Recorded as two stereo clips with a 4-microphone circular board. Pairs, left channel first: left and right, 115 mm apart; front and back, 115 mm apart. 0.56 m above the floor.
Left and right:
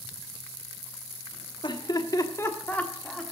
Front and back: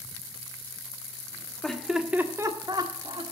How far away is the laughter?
About 1.2 m.